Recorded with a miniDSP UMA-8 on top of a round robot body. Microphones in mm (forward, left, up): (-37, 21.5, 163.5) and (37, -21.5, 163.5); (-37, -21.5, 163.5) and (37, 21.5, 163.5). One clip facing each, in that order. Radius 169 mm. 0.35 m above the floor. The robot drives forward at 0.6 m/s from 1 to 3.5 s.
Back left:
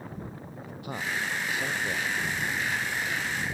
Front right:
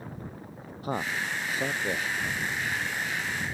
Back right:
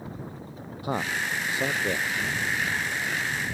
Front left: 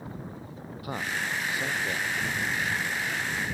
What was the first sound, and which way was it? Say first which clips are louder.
A man speaking: front right 2 dB, back right 3 dB; 85° right.